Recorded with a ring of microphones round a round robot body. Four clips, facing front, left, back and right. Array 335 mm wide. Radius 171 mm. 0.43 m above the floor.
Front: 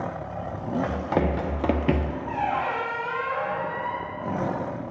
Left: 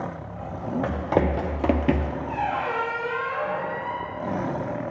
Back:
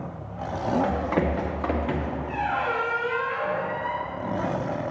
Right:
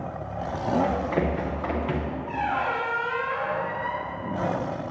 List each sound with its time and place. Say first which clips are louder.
0.8 s running footsteps: left 1 dB, back 1 dB; 65° left, 1.7 m; by 2.1 s 25° left, 0.6 m
2.3 s a squeak: even, front 1 dB; 5° right, 3 m